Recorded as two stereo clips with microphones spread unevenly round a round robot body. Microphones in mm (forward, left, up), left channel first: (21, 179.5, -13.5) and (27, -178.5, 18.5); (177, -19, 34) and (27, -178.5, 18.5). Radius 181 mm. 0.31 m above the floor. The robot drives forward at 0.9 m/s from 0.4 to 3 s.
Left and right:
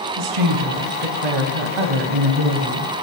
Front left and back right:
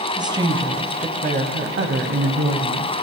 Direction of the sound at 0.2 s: 65° right.